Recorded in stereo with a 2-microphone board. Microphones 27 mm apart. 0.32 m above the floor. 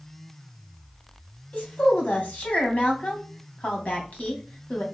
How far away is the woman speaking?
About 2.5 m.